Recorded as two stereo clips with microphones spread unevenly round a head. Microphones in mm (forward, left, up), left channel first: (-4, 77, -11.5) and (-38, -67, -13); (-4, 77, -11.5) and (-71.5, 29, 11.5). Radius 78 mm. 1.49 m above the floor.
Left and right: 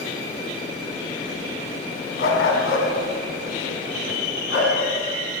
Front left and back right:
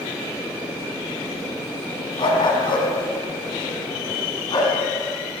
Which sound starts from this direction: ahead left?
A dog barking, at 2.2 s.